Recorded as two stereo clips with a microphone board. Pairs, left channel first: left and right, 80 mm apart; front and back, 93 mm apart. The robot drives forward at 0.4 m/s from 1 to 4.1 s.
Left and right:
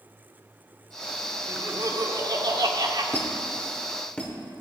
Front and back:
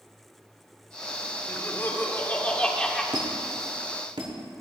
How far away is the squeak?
About 1.3 m.